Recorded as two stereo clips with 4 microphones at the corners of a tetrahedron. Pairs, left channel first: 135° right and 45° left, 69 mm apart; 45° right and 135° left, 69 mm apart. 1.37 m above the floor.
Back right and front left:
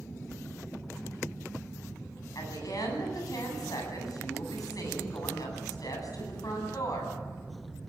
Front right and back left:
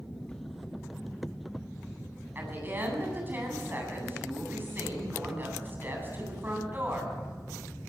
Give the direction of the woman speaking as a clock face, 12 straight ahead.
5 o'clock.